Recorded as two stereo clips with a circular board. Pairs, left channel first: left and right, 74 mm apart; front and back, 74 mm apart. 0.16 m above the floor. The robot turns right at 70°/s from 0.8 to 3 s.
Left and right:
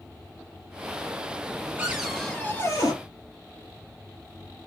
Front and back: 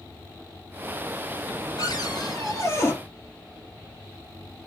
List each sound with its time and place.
1.8 s a cupboard door: 25° right, 3 m; by 2.9 s 55° left, 3 m